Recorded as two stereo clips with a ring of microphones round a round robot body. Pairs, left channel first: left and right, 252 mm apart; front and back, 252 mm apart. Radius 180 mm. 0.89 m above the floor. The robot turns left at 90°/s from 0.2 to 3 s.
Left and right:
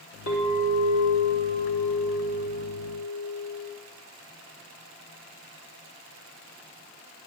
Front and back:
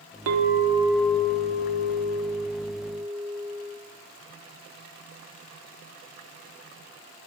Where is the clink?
155° left, 1.1 m; by 3.7 s 95° right, 1.1 m.